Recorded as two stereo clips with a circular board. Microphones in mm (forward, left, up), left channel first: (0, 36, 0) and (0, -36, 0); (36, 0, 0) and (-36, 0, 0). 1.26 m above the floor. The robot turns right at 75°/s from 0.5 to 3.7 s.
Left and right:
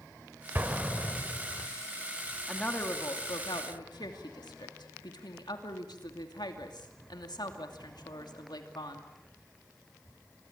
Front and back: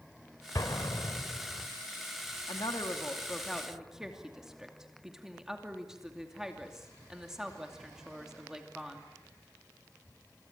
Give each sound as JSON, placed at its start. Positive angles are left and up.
{"t": 0.6, "sound": "an explosion", "azimuth_deg": -30, "distance_m": 1.7}
{"t": 2.5, "sound": "a woman speaking", "azimuth_deg": 5, "distance_m": 2.5}